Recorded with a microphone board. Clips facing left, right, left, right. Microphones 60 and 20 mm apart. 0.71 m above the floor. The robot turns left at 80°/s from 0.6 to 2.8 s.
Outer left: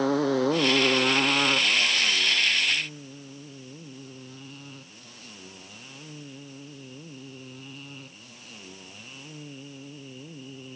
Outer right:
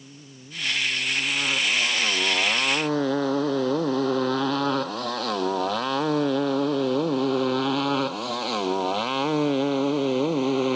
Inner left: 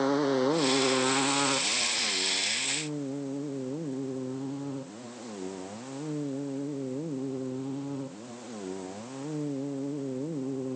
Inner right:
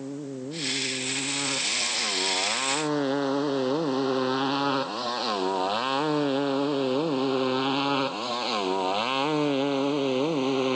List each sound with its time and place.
0.0 s a motorcycle: 85° left; by 10.8 s 75° right (ahead or behind)